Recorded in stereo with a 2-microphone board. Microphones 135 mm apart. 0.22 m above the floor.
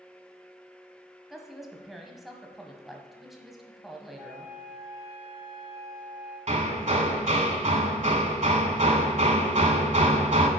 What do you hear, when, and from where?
1.3 s a woman speaking: centre (ahead or behind), 1.0 m
4.2 s a flute: 65° right (ahead or behind), 4 m
6.5 s hammering: 55° right (ahead or behind), 1.0 m